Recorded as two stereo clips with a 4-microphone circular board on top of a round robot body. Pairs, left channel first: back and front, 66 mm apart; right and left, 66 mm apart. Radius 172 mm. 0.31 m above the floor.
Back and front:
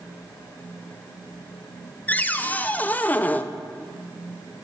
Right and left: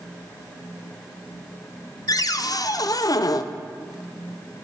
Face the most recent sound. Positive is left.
turn(degrees=-115)